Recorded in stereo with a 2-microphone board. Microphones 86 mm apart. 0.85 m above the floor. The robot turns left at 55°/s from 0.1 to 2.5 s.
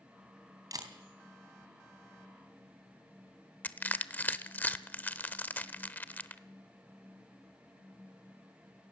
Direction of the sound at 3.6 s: 20° left (ahead or behind).